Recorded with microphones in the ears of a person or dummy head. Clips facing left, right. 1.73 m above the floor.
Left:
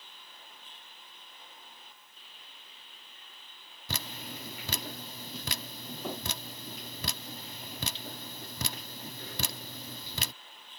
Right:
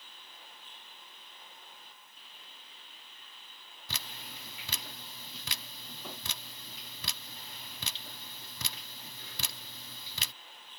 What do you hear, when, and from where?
3.9 s dripping: 35° left (ahead or behind)